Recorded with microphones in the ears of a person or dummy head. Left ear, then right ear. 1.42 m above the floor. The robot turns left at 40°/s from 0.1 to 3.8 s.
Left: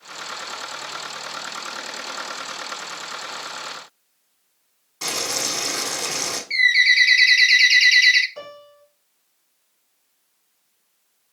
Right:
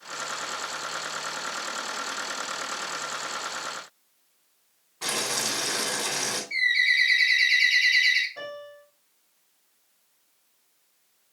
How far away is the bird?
About 1.2 m.